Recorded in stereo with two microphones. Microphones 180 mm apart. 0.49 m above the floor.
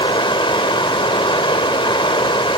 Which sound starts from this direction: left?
Running water, at 0.0 s.